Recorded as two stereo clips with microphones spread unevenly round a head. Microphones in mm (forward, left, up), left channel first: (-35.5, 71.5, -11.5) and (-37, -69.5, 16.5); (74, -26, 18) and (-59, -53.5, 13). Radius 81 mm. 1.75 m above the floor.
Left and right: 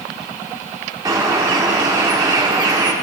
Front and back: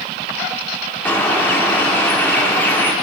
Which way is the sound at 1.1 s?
55° right.